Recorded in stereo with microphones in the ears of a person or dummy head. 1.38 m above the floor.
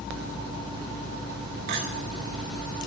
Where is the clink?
55° right (ahead or behind), 1.0 m.